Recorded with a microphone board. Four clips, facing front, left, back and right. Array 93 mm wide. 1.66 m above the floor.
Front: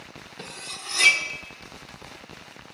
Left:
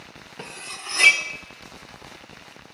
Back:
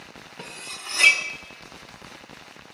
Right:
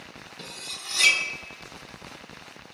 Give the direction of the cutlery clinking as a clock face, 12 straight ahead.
8 o'clock.